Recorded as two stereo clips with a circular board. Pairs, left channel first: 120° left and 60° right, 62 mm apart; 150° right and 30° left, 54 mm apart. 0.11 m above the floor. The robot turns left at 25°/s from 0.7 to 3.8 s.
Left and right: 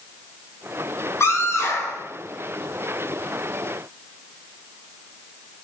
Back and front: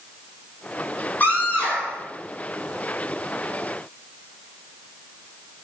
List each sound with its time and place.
1.2 s a scream: 155° left, 4.5 m; by 2.0 s 135° left, 4.5 m